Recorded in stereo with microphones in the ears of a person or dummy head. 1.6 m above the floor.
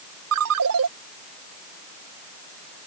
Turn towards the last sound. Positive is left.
turn(degrees=-70)  # may be behind; listen again after turning